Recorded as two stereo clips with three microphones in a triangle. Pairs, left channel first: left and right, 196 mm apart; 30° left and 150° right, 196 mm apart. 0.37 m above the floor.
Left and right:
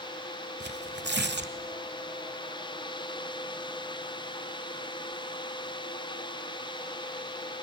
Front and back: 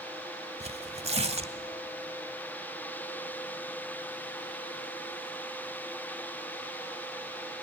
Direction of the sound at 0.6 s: 95° right.